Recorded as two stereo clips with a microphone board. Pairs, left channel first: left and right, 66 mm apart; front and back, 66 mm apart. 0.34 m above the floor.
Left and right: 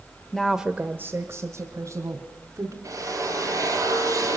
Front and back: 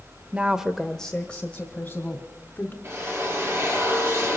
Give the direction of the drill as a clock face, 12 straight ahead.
4 o'clock.